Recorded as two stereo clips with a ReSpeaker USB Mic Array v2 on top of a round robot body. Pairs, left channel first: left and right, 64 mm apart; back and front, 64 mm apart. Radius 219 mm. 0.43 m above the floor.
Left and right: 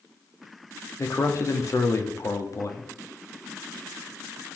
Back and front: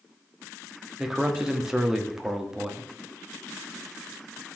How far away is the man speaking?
About 1.6 m.